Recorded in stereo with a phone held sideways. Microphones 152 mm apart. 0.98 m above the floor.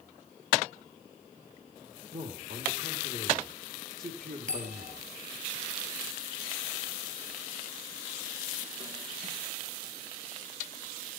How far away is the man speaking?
About 3 m.